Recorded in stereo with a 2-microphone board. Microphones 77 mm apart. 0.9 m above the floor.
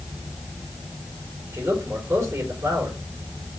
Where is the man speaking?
40° right (ahead or behind), 4 m.